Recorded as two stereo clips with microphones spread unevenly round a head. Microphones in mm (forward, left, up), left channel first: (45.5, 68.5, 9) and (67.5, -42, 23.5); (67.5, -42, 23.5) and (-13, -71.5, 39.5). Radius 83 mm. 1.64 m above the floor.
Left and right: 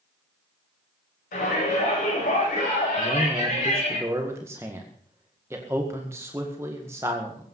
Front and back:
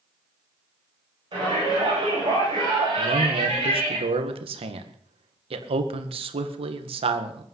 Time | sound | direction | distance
1.3 | a shout | 135° left | 10 m
3.0 | a man speaking | 155° right | 1.8 m